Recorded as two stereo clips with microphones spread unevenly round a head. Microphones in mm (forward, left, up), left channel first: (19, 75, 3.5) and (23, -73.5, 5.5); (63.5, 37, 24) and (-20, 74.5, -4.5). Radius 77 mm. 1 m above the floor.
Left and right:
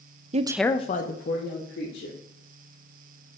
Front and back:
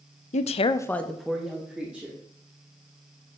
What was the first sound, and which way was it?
A woman speaking, 45° right.